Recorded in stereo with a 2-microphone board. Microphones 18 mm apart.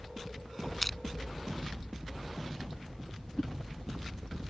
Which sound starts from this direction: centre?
Crushing, at 0.8 s.